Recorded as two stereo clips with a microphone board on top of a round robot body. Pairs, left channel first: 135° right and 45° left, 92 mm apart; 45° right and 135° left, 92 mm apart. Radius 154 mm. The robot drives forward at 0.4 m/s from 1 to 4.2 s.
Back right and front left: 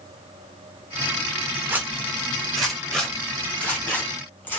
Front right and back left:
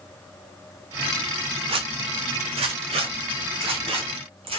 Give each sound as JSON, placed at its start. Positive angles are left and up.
{"t": 1.7, "sound": "a zipper", "azimuth_deg": 115, "distance_m": 0.7}